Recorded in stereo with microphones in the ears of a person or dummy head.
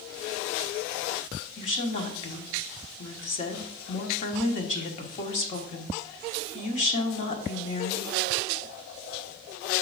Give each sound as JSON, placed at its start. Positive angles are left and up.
{"t": 1.6, "sound": "a woman speaking", "side_deg": 40, "distance_m": 1.2}